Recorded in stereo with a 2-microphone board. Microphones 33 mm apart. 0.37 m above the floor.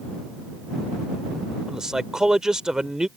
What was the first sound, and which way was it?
A man speaking, 20° right (ahead or behind).